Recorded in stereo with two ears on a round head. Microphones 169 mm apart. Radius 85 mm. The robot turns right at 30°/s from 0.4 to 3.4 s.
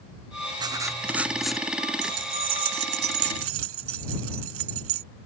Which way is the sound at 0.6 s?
25° right.